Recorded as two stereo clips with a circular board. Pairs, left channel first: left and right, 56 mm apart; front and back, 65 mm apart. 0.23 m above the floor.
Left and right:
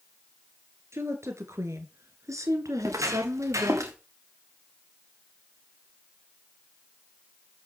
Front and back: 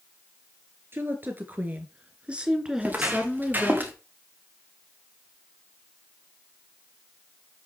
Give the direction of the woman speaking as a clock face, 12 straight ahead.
4 o'clock.